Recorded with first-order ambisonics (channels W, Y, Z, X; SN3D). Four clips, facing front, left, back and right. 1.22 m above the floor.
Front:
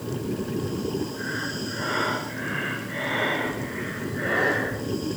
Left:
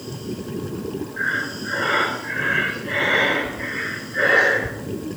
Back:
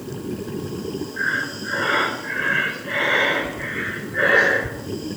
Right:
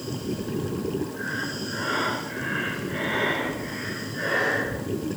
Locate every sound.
1.2 s breathing: 140° left, 2.5 m